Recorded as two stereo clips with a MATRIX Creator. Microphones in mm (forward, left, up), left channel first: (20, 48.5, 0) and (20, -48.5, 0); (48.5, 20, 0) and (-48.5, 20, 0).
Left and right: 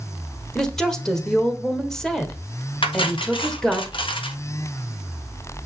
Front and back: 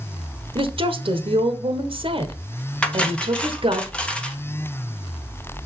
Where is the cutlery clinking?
75° left, 1.2 m.